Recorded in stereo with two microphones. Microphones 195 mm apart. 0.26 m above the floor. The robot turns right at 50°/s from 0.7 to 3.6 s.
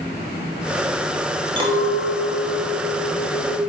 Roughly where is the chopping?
No chopping in this recording.